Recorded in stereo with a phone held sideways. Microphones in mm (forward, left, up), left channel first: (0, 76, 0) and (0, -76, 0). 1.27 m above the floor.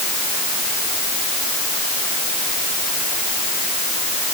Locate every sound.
Only background noise.